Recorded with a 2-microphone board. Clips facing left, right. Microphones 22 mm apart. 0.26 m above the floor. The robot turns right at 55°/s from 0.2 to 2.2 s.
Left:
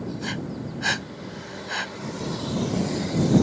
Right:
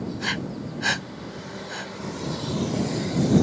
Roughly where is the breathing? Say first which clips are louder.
Right 3 dB; right.